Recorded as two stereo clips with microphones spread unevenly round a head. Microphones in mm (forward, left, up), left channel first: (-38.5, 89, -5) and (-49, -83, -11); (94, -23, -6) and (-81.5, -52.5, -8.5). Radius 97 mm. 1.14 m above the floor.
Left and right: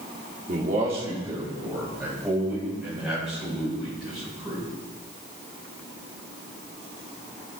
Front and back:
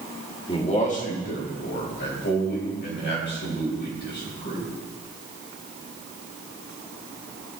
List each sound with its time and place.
0.5 s a man speaking: 55° right, 1.2 m; by 4.7 s 5° right, 6 m